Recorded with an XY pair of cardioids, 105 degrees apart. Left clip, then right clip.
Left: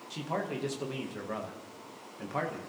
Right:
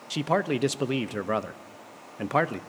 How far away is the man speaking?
About 0.6 m.